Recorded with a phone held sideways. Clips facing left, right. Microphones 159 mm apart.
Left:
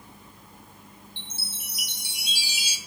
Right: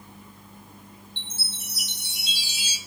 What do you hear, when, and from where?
1.2 s a chime: 10° left (ahead or behind), 4 m